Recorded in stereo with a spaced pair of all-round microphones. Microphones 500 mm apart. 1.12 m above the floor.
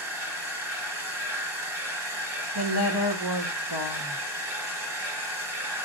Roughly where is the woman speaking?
Right.